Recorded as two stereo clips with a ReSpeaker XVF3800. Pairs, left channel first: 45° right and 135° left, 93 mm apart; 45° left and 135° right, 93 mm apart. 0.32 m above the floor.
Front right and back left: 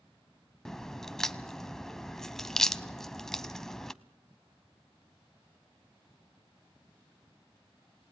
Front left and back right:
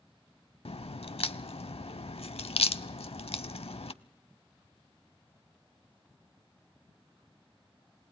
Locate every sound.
0.7 s a crack: 40° left, 0.5 m